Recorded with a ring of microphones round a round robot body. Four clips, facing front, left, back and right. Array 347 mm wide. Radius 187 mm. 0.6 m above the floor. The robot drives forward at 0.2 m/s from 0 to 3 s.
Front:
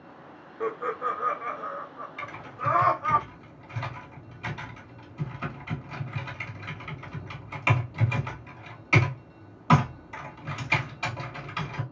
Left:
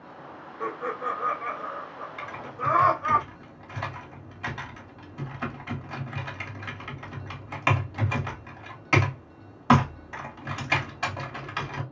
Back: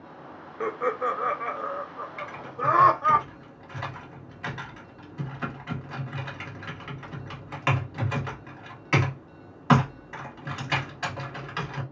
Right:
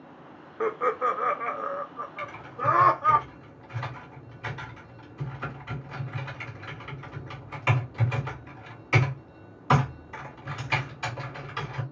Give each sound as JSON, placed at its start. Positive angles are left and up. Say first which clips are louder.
{"t": 0.6, "sound": "laughter", "louder": "right 5 dB, back 3 dB", "azimuth_deg": -110, "distance_m": 0.6}
{"t": 2.2, "sound": "typing on a keyboard", "louder": "even, back 2 dB", "azimuth_deg": 95, "distance_m": 1.8}